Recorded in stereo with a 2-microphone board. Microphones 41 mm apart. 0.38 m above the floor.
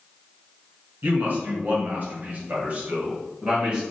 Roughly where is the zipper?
I don't hear a zipper.